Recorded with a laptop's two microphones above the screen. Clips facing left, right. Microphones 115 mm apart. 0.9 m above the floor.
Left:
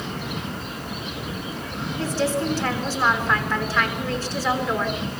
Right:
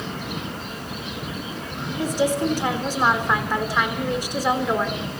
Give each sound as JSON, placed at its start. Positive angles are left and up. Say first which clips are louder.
{"t": 2.0, "sound": "a woman speaking", "louder": "right 2 dB", "side_deg": -15, "distance_m": 3.0}